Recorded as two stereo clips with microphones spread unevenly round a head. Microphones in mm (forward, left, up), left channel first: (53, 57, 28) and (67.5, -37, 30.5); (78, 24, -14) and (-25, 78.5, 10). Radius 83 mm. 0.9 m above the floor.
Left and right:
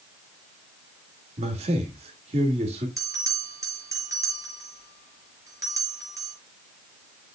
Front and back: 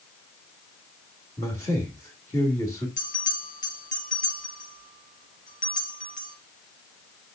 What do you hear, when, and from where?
1.4 s a man speaking: 100° right, 2.5 m
3.0 s a bell: 25° right, 5 m